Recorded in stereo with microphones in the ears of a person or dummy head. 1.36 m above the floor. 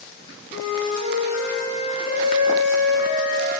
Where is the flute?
65° left (ahead or behind), 1.7 m.